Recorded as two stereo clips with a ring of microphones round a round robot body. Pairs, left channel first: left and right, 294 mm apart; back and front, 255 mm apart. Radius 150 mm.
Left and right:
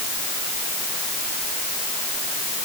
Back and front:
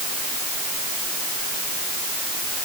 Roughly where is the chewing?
I don't hear chewing.